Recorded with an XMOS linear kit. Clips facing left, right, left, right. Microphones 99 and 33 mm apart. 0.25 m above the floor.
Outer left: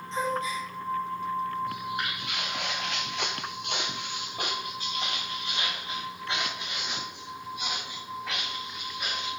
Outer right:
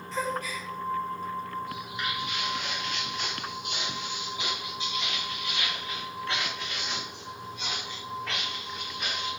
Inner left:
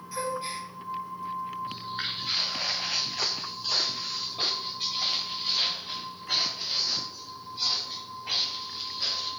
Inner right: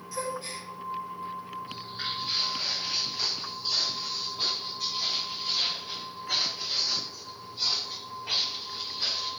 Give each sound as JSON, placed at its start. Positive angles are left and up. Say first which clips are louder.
{"t": 0.1, "sound": "a gasp", "louder": "outer left 2 dB, inner left 2 dB", "side_deg": 25, "distance_m": 1.1}
{"t": 1.7, "sound": "footsteps", "louder": "outer left 2 dB, inner left 2 dB", "side_deg": 50, "distance_m": 1.4}